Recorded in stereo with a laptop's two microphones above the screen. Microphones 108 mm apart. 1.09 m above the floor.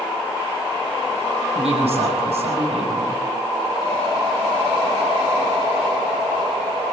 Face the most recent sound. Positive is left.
turn(degrees=-70)  # may be behind; listen again after turning